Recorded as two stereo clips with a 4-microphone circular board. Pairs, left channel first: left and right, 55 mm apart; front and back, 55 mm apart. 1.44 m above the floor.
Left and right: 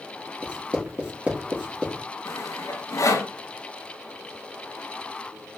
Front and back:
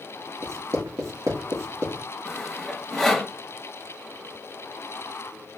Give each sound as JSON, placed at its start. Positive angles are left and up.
{"t": 0.4, "sound": "writing", "azimuth_deg": -160, "distance_m": 2.5}
{"t": 2.2, "sound": "sawing", "azimuth_deg": 90, "distance_m": 2.5}